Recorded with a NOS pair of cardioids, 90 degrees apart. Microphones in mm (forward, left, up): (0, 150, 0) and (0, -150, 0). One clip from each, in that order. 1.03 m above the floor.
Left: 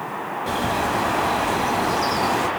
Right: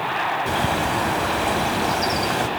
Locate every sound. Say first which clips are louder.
0.5 s a bird: right 1 dB; 20° right, 2 m